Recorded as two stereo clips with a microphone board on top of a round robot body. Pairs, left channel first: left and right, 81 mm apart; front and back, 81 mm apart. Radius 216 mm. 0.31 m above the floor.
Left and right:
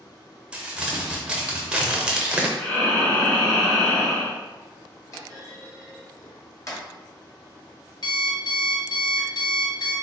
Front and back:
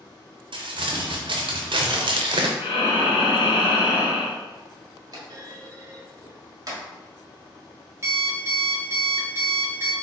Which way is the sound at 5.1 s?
140° left.